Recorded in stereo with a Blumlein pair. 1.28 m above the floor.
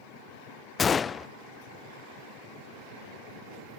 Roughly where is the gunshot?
Ahead.